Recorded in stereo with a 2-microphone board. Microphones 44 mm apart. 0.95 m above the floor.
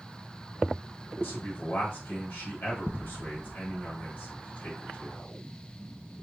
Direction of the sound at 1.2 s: 50° left (ahead or behind).